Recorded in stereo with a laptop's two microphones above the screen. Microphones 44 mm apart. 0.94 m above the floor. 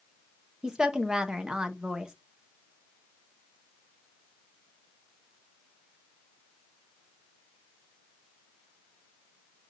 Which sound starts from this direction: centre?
A woman speaking, at 0.6 s.